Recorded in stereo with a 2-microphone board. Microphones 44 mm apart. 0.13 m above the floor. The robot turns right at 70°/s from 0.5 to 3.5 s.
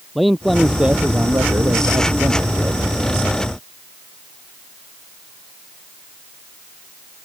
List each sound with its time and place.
0.1 s a man speaking: 175° left; by 3.0 s 10° right